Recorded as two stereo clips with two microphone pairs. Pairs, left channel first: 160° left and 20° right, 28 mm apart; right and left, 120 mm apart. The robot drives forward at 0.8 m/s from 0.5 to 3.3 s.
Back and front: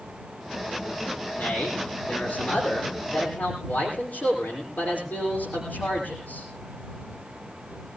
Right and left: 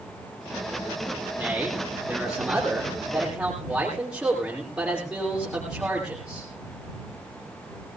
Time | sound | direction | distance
1.4 | a man speaking | 170° left | 10 m